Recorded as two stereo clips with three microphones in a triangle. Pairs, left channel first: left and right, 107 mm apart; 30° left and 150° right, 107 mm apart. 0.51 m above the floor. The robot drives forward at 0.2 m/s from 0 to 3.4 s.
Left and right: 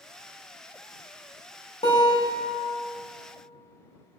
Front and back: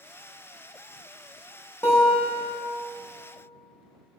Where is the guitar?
100° left, 0.6 m; by 2.6 s 115° left, 0.7 m.